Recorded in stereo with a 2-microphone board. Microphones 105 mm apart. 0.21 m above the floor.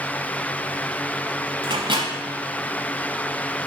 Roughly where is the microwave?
Right.